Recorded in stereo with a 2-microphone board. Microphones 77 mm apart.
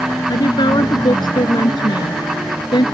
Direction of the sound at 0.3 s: 65° left (ahead or behind).